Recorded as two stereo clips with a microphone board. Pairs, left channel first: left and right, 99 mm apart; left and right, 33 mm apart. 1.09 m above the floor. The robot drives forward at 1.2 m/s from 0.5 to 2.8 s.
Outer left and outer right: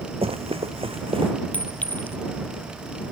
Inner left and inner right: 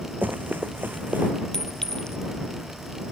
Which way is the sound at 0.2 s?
80° right.